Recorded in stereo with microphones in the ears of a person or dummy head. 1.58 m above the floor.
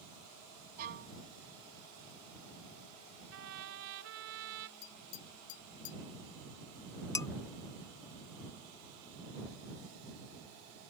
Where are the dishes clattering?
10° left (ahead or behind).